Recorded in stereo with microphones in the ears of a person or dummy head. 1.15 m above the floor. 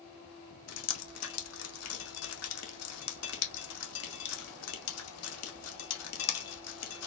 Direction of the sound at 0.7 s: 80° left.